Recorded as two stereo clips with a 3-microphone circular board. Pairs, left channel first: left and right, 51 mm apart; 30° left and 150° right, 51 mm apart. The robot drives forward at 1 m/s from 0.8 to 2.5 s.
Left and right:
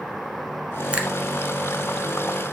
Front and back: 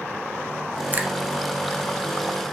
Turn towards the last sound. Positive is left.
turn(degrees=-170)